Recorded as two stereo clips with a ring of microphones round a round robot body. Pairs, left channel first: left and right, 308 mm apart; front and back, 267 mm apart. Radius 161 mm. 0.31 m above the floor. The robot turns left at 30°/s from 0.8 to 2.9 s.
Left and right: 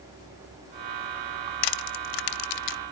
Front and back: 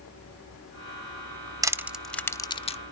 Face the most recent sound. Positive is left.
turn(degrees=65)